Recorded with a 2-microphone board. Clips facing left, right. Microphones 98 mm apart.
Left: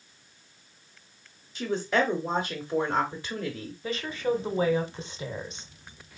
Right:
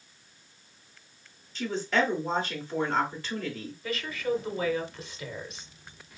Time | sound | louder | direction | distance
1.6 | a woman speaking | left 1 dB | 15° left (ahead or behind) | 1.1 m
3.8 | a woman speaking | left 2 dB | 30° left (ahead or behind) | 0.9 m